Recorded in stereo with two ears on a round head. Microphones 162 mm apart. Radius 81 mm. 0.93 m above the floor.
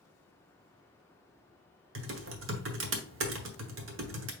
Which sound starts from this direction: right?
Typing on a keyboard, at 1.9 s.